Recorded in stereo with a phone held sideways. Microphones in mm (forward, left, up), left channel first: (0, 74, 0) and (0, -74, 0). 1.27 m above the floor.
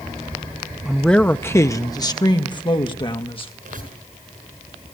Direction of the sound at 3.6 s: 70° right (ahead or behind).